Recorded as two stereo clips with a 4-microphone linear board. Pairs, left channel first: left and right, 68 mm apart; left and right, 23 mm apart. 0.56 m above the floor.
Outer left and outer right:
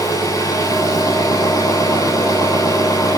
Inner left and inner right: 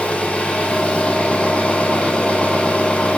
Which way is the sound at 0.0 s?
65° left (ahead or behind).